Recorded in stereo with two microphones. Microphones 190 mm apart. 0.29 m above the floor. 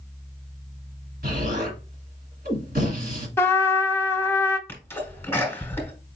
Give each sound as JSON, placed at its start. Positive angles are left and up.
{"t": 1.2, "sound": "an explosion", "side_deg": -50, "distance_m": 1.9}
{"t": 3.4, "sound": "a trumpet", "side_deg": 15, "distance_m": 0.7}
{"t": 4.7, "sound": "a sneeze", "side_deg": 10, "distance_m": 1.6}